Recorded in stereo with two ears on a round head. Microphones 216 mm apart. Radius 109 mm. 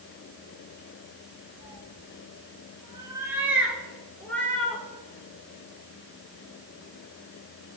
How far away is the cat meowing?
About 3 m.